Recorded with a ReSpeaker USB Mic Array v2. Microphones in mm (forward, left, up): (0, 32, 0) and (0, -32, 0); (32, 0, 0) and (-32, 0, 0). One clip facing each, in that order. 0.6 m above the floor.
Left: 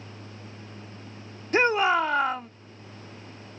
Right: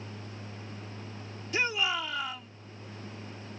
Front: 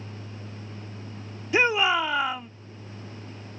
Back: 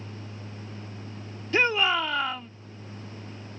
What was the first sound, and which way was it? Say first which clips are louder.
A shout: left 9 dB, front 2 dB; 75° left.